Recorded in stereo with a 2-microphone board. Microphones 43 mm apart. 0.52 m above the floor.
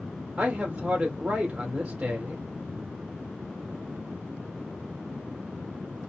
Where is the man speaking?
25° right (ahead or behind), 1.6 m.